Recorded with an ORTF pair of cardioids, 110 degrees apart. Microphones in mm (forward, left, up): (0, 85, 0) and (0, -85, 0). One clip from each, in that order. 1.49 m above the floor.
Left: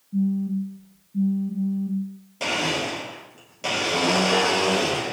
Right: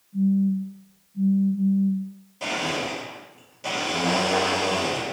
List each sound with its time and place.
0.1 s a phone buzzing: 65° left, 0.9 m
2.4 s a blender: 40° left, 1.4 m